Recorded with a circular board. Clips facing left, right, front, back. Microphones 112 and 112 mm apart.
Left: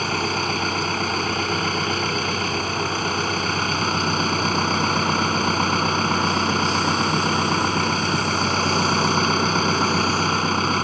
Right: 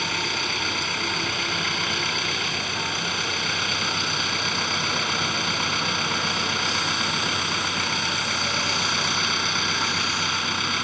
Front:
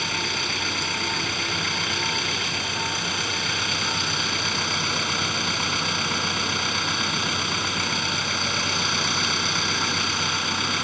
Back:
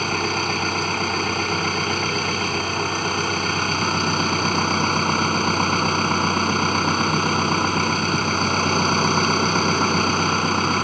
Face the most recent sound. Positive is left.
turn(degrees=135)